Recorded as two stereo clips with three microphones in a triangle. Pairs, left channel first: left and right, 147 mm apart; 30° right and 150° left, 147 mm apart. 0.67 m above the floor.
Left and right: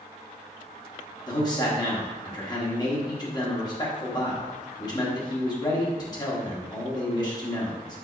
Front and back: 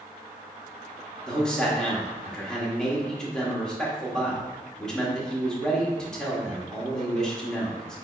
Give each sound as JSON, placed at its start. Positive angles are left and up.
{"t": 1.3, "sound": "a man speaking", "azimuth_deg": 50, "distance_m": 1.2}